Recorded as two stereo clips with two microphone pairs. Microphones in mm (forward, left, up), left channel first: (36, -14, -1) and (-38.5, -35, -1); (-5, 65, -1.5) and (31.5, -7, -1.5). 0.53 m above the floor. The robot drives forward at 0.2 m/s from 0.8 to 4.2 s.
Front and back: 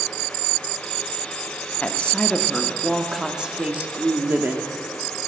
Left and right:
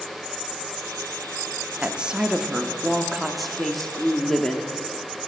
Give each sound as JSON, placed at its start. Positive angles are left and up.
{"t": 1.8, "sound": "a woman speaking", "azimuth_deg": -10, "distance_m": 0.6}